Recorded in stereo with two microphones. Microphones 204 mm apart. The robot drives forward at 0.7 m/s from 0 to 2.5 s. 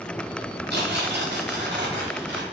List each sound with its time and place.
0.7 s tearing paper: 60° right (ahead or behind), 5.5 m; by 2.4 s 75° right (ahead or behind), 5 m